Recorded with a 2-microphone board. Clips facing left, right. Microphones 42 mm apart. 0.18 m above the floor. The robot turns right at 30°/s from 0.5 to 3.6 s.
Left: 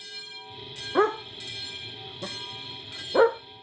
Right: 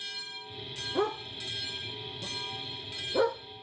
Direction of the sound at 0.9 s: 55° left (ahead or behind).